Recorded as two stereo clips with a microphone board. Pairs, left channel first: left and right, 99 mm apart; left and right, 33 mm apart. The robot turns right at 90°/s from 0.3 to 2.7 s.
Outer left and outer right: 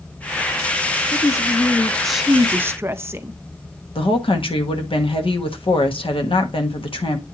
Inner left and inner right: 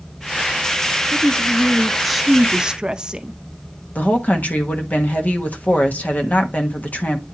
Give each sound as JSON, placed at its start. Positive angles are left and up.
{"t": 1.1, "sound": "a woman speaking", "side_deg": 30, "distance_m": 0.6}
{"t": 4.0, "sound": "a woman speaking", "side_deg": 55, "distance_m": 1.2}